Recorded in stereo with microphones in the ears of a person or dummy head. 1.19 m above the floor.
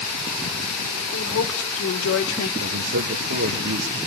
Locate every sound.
1.1 s a woman speaking: 85° left, 3.5 m; by 2.5 s 80° left, 1.5 m
2.6 s a man speaking: 65° right (ahead or behind), 1.4 m